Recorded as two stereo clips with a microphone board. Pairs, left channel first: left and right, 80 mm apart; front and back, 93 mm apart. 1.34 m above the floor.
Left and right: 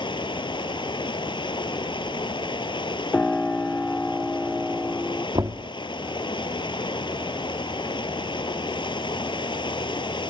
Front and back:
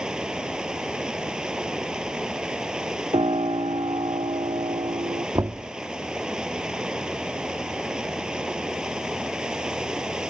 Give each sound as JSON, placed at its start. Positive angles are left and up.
{"t": 0.0, "sound": "running water", "azimuth_deg": 100}
{"t": 3.1, "sound": "a piano", "azimuth_deg": 160}
{"t": 5.3, "sound": "knocking", "azimuth_deg": -125}